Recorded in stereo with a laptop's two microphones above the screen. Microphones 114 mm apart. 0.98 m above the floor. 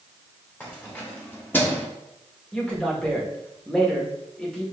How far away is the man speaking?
About 1.5 m.